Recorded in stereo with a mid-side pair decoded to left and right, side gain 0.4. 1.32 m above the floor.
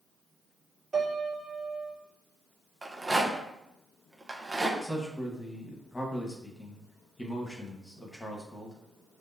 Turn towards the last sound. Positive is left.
turn(degrees=20)